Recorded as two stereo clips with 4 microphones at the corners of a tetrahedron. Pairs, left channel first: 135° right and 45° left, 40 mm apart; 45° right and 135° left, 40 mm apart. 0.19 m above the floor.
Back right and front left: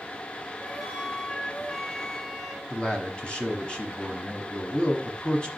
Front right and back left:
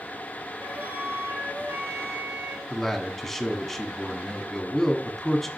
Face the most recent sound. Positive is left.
turn(degrees=-115)